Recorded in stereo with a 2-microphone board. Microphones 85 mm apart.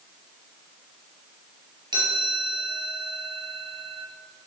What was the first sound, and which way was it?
A chime, 55° right (ahead or behind).